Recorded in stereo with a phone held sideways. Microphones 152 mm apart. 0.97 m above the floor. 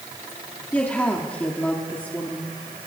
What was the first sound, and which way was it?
A woman speaking, 10° left (ahead or behind).